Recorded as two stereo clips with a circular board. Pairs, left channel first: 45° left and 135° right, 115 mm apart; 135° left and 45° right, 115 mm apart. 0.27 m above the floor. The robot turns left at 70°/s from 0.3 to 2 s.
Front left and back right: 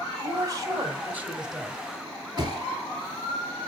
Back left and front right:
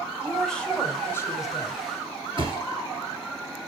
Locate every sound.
0.2 s a woman speaking: 130° right, 1.1 m; by 1.8 s 125° left, 1.1 m
2.4 s a thud: 85° right, 1.4 m